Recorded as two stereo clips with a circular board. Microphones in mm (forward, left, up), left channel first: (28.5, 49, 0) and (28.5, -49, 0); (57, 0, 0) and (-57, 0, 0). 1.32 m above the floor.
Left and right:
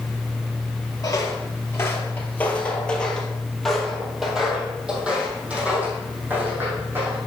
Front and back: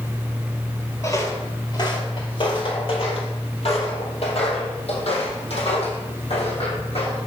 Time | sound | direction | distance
1.0 | footsteps | 50° left | 1.9 m